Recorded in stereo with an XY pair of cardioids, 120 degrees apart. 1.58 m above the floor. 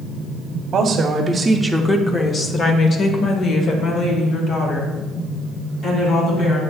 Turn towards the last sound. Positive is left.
turn(degrees=70)